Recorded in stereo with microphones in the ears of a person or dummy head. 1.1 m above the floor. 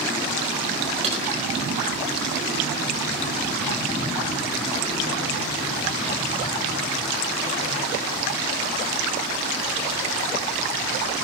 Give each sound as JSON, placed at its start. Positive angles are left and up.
{"t": 1.0, "sound": "typing on a keyboard", "side_deg": -35, "distance_m": 3.5}